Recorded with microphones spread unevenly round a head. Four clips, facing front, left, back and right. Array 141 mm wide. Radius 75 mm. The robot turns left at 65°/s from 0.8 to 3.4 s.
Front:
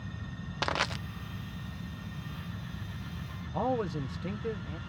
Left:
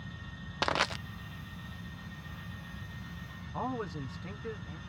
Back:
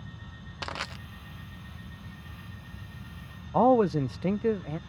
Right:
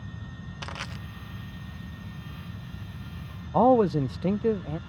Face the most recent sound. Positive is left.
turn(degrees=-120)